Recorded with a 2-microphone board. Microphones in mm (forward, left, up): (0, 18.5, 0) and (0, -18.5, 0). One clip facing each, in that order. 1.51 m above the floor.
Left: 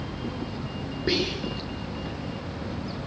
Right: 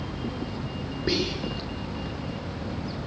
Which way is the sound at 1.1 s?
5° left (ahead or behind).